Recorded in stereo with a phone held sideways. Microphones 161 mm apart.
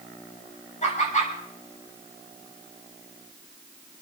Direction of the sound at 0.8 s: 45° left (ahead or behind).